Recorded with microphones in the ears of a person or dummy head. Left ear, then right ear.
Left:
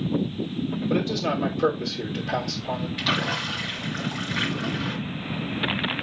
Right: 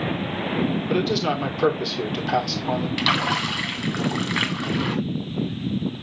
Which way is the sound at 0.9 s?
30° right (ahead or behind).